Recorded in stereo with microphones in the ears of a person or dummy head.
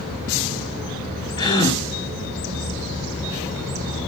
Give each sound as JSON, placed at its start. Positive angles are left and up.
{"t": 1.4, "sound": "a gasp", "side_deg": 25, "distance_m": 3.0}